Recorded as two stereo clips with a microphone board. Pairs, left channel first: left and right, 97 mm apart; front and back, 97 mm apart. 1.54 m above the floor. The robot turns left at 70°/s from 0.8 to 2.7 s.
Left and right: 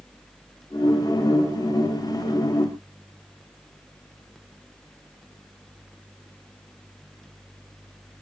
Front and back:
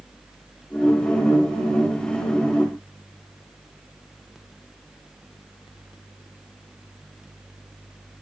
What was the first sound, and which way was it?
Only background noise.